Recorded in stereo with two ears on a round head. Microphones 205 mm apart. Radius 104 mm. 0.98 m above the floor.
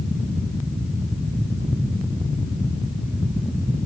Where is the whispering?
No whispering in this recording.